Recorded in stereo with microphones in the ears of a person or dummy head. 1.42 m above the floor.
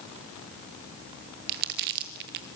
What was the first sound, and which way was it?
Crumpling, 50° right (ahead or behind).